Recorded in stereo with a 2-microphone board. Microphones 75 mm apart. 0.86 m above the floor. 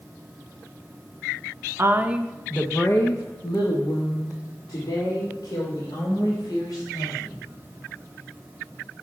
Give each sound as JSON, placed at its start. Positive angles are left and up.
{"t": 1.8, "sound": "a woman speaking", "side_deg": -35, "distance_m": 0.7}